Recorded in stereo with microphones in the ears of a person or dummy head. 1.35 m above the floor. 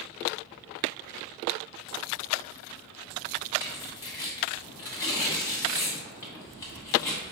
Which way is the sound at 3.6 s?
15° left (ahead or behind).